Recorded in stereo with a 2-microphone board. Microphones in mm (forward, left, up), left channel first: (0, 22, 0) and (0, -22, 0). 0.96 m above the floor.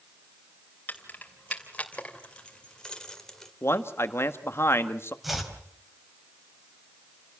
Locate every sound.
0.9 s keys jangling: 40° left (ahead or behind), 3 m; by 3.5 s 10° left (ahead or behind), 2 m
3.6 s a man speaking: 65° left (ahead or behind), 1.6 m
5.2 s chopping: 5° right (ahead or behind), 3.5 m